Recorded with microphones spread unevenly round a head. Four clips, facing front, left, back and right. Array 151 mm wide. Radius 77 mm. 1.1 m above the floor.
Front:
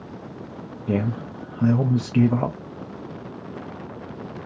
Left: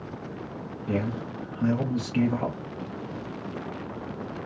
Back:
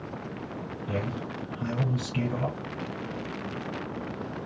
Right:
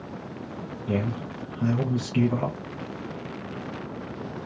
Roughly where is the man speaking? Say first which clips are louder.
Even, front 8 dB; ahead.